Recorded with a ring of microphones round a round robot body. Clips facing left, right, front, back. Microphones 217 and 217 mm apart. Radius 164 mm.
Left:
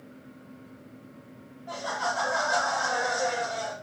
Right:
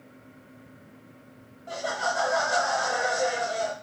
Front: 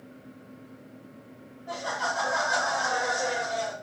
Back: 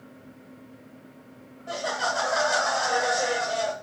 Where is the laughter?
150° right, 0.8 m.